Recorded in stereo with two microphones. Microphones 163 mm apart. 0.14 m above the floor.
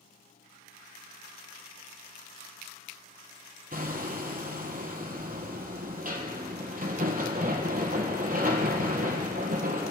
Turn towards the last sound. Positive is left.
turn(degrees=-55)  # may be behind; listen again after turning